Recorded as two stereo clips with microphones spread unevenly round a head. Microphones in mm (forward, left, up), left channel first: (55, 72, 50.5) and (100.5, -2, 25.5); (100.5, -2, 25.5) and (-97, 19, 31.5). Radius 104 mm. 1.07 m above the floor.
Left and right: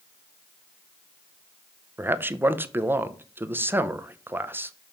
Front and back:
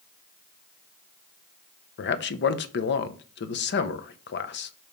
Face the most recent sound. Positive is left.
turn(degrees=-10)